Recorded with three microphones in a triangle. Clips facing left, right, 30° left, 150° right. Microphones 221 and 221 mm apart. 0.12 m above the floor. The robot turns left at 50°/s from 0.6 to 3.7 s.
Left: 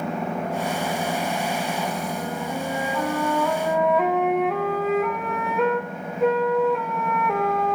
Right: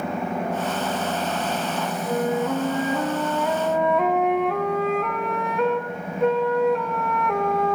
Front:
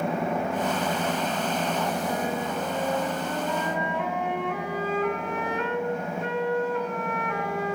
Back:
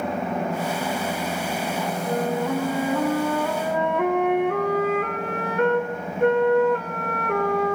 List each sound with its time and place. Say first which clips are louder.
2.1 s a flute: right 6 dB, back 5 dB; 100° right, 4 m; by 7.7 s straight behind, 4 m